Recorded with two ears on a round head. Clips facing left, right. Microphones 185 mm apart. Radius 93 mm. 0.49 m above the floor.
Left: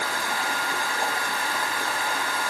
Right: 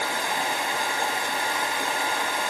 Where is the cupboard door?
I don't hear a cupboard door.